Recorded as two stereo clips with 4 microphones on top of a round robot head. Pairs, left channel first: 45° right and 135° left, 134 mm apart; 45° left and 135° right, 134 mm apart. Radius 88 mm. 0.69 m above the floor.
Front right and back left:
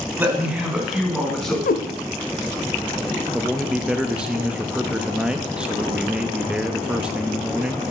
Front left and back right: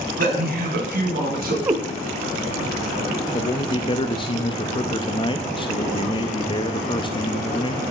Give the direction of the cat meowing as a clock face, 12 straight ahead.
2 o'clock.